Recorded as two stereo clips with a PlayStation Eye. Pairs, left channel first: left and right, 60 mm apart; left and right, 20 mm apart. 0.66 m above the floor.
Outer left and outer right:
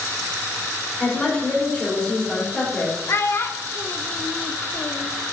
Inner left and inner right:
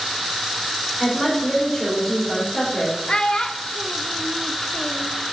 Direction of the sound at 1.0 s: 10° left (ahead or behind).